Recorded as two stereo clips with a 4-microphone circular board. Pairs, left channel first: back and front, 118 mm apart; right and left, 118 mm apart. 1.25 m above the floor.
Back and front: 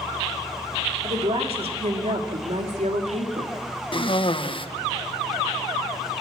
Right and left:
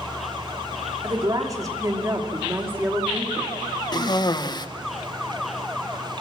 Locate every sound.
1.0 s a woman speaking: 35° left, 3 m; by 3.5 s 5° left, 2.5 m
3.9 s a cough: 140° right, 1.2 m